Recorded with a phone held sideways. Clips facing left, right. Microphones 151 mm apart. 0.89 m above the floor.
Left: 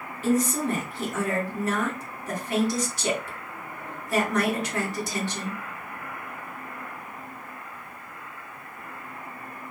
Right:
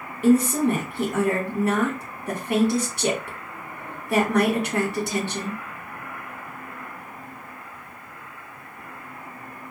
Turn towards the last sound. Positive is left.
turn(degrees=-55)  # may be behind; listen again after turning